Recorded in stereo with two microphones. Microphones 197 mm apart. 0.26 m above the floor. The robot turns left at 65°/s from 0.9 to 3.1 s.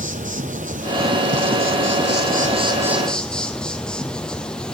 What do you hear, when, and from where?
0.0 s an insect: 40° right, 0.9 m; by 4.7 s 175° left, 0.9 m